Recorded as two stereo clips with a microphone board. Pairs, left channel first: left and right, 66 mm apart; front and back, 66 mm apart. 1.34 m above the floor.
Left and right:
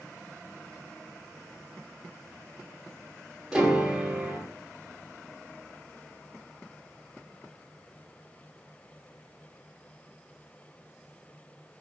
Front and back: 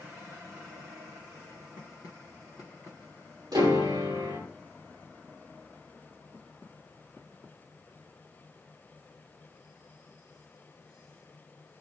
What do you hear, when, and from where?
3.5 s a piano: 170° right, 4.5 m